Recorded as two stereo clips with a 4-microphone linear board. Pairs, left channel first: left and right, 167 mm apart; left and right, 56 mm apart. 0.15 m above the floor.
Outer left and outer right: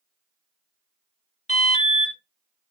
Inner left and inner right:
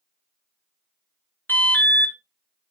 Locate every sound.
1.5 s an alarm: 40° left (ahead or behind), 1.8 m